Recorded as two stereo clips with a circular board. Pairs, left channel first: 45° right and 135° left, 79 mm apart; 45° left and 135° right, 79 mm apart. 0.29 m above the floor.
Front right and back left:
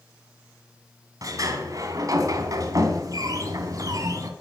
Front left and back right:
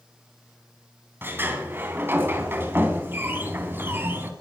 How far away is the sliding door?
About 2.5 m.